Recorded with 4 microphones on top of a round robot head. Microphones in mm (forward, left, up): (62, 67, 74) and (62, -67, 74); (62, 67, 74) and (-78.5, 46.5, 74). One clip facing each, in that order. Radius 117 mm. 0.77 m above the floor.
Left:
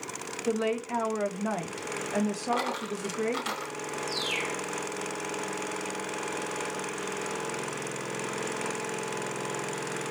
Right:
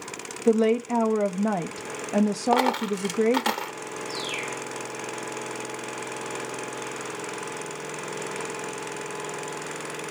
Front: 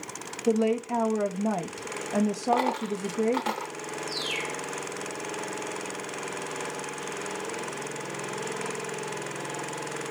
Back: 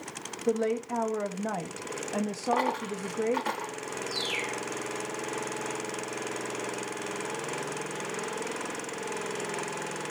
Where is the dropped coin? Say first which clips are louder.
Right 8 dB, front 3 dB; 65° right, 0.9 m.